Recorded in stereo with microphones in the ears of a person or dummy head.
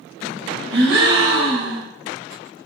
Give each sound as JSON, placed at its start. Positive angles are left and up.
{"t": 0.7, "sound": "a gasp", "side_deg": -65, "distance_m": 2.0}